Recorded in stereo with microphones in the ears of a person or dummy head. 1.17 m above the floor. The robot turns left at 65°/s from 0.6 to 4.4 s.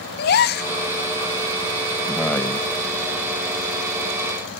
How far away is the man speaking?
About 0.8 m.